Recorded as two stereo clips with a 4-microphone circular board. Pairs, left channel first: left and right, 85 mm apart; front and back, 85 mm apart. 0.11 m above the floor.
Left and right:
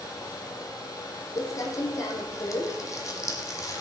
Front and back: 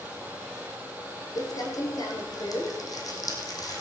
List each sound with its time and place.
1.4 s crumpling: 45° left, 2.5 m